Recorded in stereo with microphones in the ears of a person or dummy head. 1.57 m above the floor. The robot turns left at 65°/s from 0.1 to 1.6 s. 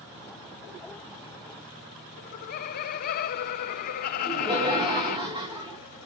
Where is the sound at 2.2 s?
45° left (ahead or behind), 0.8 m.